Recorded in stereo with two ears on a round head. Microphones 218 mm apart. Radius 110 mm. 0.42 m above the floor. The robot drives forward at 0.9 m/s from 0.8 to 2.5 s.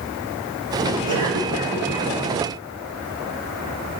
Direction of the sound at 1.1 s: 20° right (ahead or behind).